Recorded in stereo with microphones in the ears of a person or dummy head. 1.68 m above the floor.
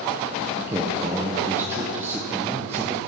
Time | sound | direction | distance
0.6 | a man speaking | 15° right (ahead or behind) | 1.4 m